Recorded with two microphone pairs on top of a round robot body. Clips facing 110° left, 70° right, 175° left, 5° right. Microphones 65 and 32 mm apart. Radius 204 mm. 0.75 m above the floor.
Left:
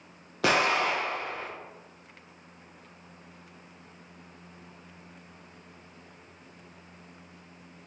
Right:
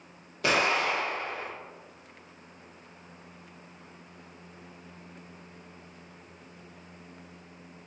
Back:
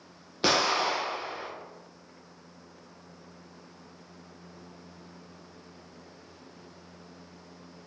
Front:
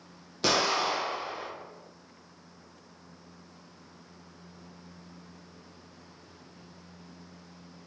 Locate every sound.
0.4 s an explosion: 105° left, 1.2 m